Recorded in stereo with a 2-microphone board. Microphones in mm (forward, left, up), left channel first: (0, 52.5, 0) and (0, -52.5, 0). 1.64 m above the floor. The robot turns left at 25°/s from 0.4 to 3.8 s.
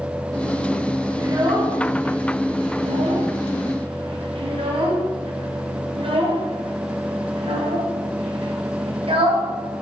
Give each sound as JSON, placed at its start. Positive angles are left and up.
{"t": 1.2, "sound": "a child speaking", "side_deg": -35, "distance_m": 1.0}